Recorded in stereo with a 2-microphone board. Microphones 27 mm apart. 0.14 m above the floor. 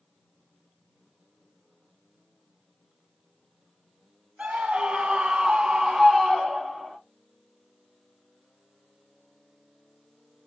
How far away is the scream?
About 2 m.